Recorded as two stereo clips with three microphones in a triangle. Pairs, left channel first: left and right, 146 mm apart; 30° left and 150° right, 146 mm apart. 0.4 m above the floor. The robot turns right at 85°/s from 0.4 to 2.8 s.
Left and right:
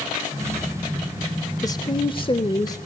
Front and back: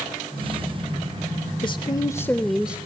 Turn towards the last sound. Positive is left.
turn(degrees=140)